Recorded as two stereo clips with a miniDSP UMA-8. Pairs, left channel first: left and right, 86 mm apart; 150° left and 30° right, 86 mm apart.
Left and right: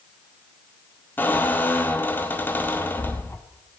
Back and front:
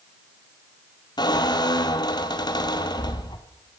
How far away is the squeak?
About 1.2 m.